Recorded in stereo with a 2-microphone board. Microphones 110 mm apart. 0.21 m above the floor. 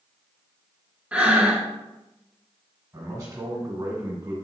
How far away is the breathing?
About 0.6 m.